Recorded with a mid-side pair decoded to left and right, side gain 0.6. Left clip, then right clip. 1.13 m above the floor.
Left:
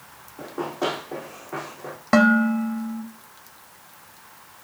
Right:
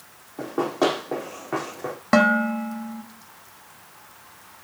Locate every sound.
0.4 s running footsteps: 50° right, 3.5 m
2.1 s dishes clattering: 5° right, 1.5 m